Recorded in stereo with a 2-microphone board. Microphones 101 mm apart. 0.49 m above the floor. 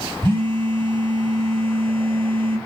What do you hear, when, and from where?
0.2 s a phone buzzing: 55° right (ahead or behind), 0.9 m